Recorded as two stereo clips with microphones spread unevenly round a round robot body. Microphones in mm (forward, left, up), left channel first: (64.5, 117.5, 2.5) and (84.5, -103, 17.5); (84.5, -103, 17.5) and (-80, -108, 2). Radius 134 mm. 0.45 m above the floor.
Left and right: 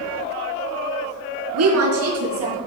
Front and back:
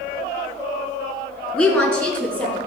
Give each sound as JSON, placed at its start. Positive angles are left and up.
{"t": 1.5, "sound": "a woman speaking", "azimuth_deg": -80, "distance_m": 4.5}